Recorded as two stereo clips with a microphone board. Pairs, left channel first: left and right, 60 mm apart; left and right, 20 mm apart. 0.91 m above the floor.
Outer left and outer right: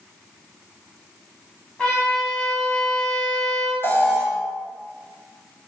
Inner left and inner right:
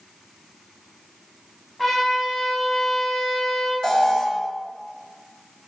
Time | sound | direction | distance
1.8 | a trumpet | 15° left (ahead or behind) | 4.5 m
3.8 | an alarm | 40° left (ahead or behind) | 2.5 m